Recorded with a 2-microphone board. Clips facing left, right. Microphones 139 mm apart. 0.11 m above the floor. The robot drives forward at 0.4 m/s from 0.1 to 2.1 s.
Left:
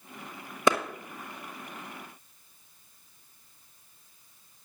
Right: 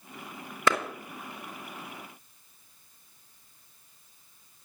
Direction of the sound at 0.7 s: 15° left (ahead or behind).